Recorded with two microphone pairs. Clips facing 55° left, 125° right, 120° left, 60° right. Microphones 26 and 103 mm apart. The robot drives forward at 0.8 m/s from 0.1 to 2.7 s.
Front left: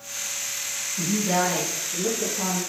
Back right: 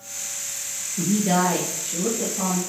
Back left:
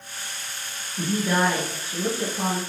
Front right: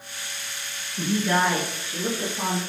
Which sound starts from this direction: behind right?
A woman speaking, at 1.0 s.